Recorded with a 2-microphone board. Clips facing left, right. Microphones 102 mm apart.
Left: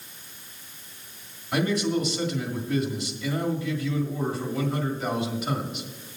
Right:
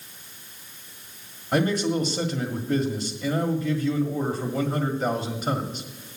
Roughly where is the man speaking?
Right.